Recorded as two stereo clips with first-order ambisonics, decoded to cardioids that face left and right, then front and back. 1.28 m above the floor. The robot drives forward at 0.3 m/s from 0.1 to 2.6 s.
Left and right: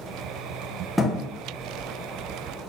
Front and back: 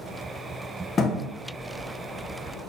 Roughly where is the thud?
Ahead.